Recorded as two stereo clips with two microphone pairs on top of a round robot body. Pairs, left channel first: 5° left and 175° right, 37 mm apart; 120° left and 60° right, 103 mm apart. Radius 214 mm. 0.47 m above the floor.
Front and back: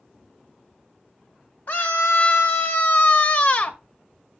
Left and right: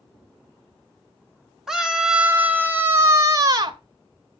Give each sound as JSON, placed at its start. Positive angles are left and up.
{"t": 1.7, "sound": "a scream", "azimuth_deg": 25, "distance_m": 2.0}